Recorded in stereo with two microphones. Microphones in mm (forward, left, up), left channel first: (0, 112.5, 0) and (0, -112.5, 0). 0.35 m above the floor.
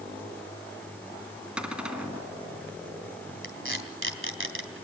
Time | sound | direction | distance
1.6 | a cupboard door | 5° right (ahead or behind) | 2.5 m
3.4 | tape being pulled | 60° right (ahead or behind) | 3.5 m